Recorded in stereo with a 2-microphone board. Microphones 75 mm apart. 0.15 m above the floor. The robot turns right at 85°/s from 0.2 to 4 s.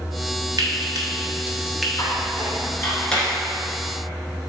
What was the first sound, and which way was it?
Frying, 60° right (ahead or behind).